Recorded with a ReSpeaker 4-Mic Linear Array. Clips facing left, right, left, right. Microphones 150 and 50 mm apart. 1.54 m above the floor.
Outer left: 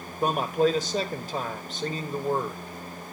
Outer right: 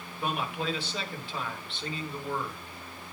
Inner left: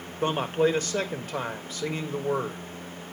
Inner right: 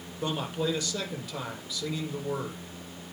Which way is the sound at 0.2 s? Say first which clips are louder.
Outer left 9 dB, inner left 6 dB; 40° left (ahead or behind).